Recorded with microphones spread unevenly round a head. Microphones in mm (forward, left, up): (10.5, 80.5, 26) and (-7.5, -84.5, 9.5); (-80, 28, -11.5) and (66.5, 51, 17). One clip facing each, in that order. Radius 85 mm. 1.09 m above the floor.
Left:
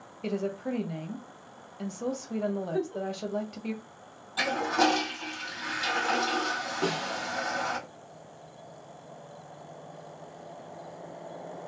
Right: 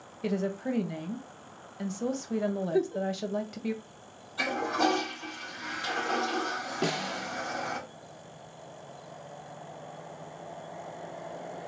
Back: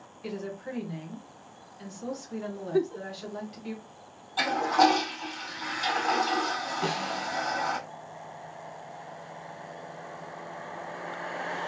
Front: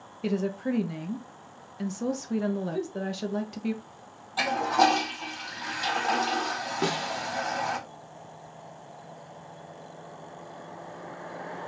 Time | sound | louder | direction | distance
0.2 | a woman speaking | right 1 dB, front 8 dB | 25° right | 0.9 m
2.7 | a giggle | right 3 dB, back 4 dB | 160° right | 0.5 m
4.4 | a toilet flushing | left 2 dB, even | 90° left | 1.9 m
6.8 | a snare drum | left 1 dB, front 3 dB | 25° right | 1.3 m